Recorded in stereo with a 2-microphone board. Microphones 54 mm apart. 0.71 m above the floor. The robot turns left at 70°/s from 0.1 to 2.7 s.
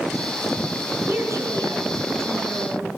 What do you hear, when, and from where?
1.1 s a woman speaking: 40° right, 9 m; by 2.9 s 155° right, 9 m